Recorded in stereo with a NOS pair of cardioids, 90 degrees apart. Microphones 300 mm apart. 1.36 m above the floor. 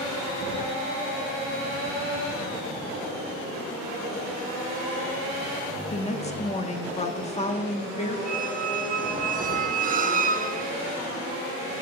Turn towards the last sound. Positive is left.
turn(degrees=-30)